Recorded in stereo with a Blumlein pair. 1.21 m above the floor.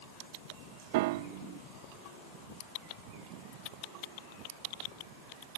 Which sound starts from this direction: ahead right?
A piano, at 0.9 s.